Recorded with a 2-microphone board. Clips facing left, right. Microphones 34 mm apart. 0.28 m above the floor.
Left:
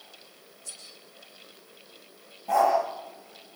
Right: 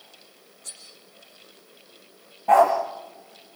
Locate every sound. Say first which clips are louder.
0.6 s cutlery clinking: right 2 dB; 70° right (ahead or behind), 9.5 m
2.5 s a dog barking: right 6 dB; 55° right (ahead or behind), 7 m